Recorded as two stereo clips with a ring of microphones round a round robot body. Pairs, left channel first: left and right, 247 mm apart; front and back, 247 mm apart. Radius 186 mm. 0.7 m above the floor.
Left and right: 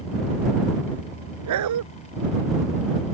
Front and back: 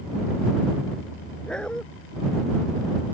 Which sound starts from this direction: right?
A dog barking, at 1.5 s.